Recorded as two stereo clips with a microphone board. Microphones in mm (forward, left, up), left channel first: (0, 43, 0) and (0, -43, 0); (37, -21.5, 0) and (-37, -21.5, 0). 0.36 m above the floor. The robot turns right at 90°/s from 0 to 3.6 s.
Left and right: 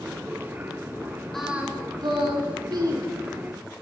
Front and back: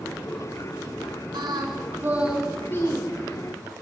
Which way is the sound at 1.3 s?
175° left.